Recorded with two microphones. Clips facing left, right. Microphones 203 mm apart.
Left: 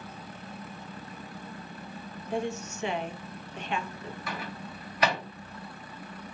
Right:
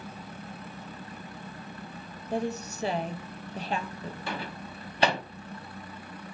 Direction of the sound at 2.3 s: 35° right (ahead or behind).